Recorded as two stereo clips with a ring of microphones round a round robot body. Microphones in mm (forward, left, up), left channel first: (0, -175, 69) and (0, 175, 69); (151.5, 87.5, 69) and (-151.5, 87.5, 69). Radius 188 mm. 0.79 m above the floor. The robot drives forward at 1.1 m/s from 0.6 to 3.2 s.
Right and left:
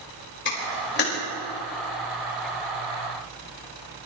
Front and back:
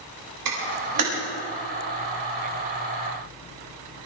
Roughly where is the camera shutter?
Behind right.